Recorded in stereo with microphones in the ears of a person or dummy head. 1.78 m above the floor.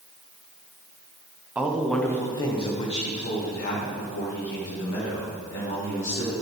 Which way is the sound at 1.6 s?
10° right (ahead or behind).